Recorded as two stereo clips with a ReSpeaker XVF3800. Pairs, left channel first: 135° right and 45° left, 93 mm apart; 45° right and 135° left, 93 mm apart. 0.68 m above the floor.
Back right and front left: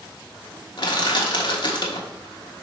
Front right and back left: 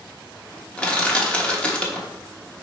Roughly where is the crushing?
Behind right.